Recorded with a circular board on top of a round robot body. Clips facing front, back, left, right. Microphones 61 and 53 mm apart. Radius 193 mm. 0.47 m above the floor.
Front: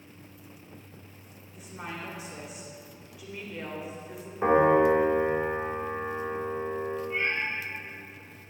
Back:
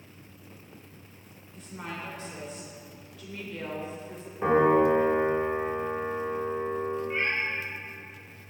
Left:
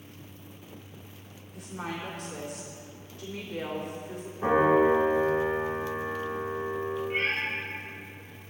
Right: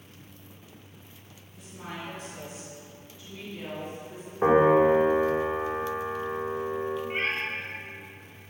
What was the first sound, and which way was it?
A woman speaking, 80° left.